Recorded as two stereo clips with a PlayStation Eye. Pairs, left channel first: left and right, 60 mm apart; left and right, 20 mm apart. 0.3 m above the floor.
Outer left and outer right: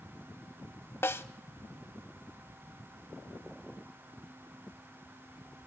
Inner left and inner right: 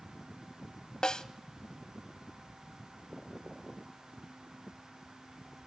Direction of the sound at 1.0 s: 45° left (ahead or behind).